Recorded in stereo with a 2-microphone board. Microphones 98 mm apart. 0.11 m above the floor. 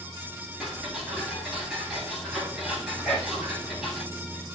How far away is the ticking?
About 8 m.